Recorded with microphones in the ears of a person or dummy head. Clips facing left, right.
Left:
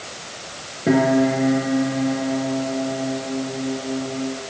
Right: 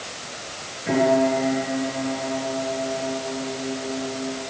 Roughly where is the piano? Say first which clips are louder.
Left 2 dB; left.